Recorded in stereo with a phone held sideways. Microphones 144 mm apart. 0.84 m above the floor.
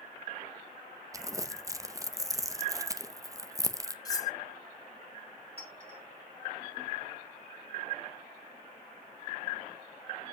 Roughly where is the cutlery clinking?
Left.